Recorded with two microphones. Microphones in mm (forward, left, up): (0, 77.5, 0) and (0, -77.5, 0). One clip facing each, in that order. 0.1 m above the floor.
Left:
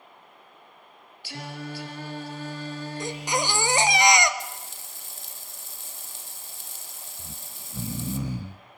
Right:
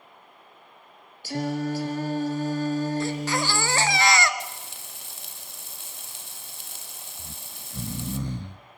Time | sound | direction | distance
1.2 | singing | 45° right (ahead or behind) | 1.9 m
3.0 | a baby crying | 20° left (ahead or behind) | 1.2 m
4.4 | frying | 70° right (ahead or behind) | 1.4 m
7.2 | snoring | 5° left (ahead or behind) | 0.8 m